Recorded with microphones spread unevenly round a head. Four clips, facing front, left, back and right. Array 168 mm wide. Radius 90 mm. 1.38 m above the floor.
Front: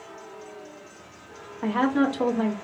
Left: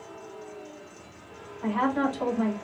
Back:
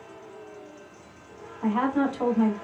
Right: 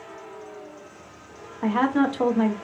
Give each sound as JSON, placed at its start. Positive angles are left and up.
{"t": 1.6, "sound": "a woman speaking", "azimuth_deg": -60, "distance_m": 1.8}